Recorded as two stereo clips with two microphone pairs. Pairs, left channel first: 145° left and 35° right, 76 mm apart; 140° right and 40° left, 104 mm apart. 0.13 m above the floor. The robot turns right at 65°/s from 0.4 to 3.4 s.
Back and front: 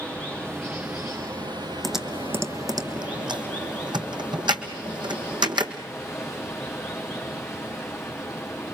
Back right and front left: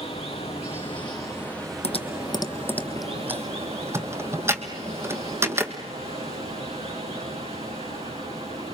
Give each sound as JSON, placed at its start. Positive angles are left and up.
{"t": 0.0, "sound": "running water", "azimuth_deg": -135, "distance_m": 4.5}
{"t": 1.8, "sound": "typing on a keyboard", "azimuth_deg": -125, "distance_m": 1.3}